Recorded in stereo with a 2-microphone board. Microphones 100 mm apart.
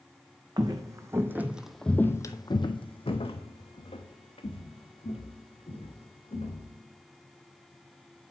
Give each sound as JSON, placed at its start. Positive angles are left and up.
{"t": 0.6, "sound": "footsteps", "side_deg": -40, "distance_m": 0.9}